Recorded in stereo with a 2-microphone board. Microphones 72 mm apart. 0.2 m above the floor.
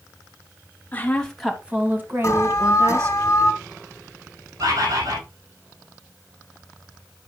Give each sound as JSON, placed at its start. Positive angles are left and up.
{"t": 0.9, "sound": "a woman speaking", "side_deg": 20, "distance_m": 1.2}
{"t": 2.2, "sound": "an alarm", "side_deg": 35, "distance_m": 2.5}
{"t": 4.6, "sound": "a bird", "side_deg": -60, "distance_m": 6.0}